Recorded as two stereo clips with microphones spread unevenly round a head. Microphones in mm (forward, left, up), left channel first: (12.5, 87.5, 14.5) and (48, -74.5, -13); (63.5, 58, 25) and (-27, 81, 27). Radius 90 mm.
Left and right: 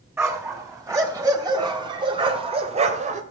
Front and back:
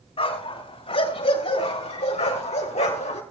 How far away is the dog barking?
About 4 m.